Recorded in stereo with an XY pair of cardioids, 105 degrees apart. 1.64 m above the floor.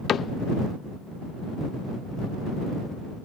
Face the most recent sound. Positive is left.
turn(degrees=55)